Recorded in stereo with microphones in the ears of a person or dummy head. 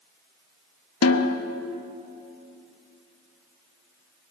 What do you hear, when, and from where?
1.0 s a snare drum: 70° left (ahead or behind), 0.9 m